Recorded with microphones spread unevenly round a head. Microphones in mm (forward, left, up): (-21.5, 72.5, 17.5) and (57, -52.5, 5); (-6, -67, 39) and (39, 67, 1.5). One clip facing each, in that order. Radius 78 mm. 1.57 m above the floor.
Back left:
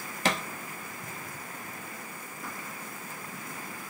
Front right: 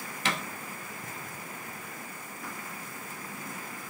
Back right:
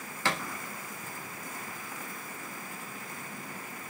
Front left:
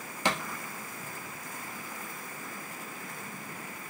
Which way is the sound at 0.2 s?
155° left.